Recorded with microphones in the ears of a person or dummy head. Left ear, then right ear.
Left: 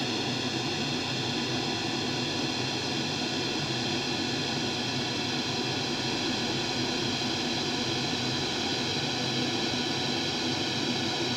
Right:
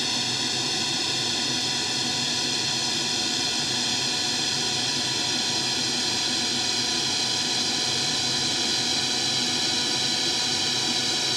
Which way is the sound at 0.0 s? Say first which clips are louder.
Right 5 dB; 45° right (ahead or behind).